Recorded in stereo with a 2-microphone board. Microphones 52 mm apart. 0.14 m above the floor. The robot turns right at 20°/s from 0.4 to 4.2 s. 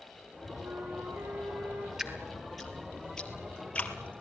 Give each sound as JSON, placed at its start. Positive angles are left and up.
{"t": 0.6, "sound": "a flute", "side_deg": -70, "distance_m": 5.5}
{"t": 2.0, "sound": "dripping", "side_deg": -10, "distance_m": 2.5}